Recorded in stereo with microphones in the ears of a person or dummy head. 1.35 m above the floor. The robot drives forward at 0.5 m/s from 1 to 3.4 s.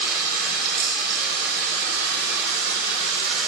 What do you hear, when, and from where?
0.0 s running water: 60° right (ahead or behind), 4 m; by 3.5 s 75° right (ahead or behind), 3.5 m